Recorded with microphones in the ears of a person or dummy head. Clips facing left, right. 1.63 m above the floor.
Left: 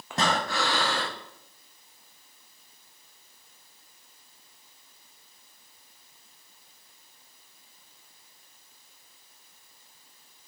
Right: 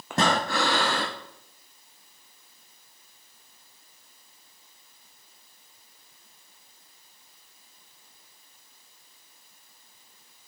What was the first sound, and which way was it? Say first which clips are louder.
Breathing: right 3 dB; 45° right (ahead or behind).